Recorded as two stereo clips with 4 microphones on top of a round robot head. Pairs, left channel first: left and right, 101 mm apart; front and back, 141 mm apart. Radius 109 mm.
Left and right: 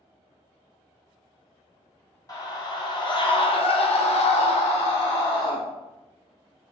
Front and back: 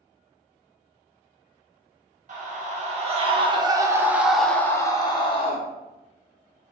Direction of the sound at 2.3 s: 145° left.